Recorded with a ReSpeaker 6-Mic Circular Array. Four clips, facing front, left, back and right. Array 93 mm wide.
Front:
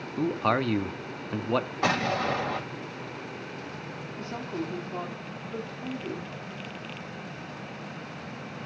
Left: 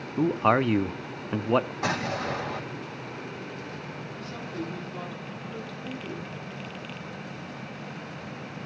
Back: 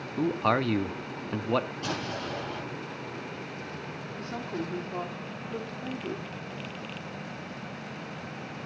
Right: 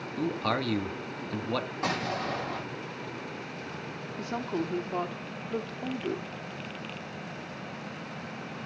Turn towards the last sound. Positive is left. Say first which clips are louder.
# right 6 dB, front 1 dB
turn(degrees=-90)